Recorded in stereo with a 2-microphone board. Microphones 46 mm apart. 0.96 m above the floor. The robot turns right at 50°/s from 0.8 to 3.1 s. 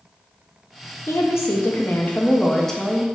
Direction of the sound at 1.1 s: 90° left.